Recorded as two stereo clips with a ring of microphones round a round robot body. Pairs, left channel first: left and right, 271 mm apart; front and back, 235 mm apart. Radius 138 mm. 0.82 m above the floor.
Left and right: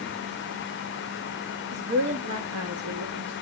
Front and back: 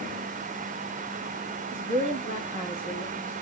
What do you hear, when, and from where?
1.7 s a woman speaking: 135° right, 1.9 m; by 3.3 s 80° right, 1.5 m